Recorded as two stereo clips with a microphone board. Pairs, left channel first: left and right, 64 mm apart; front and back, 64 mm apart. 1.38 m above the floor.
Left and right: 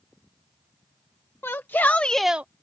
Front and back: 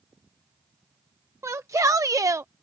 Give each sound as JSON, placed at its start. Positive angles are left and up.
{"t": 1.4, "sound": "a shout", "azimuth_deg": 140}